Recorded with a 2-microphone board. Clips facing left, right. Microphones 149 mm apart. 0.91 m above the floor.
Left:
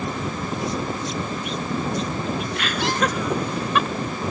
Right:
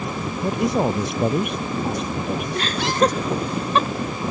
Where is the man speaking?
65° right (ahead or behind); by 2.7 s 55° right (ahead or behind).